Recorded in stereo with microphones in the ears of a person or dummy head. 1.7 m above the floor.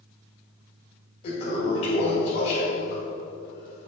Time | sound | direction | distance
1.2 | a toilet flushing | 40° left (ahead or behind) | 2 m